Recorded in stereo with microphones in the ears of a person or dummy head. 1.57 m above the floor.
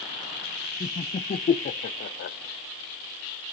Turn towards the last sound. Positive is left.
turn(degrees=45)  # may be behind; listen again after turning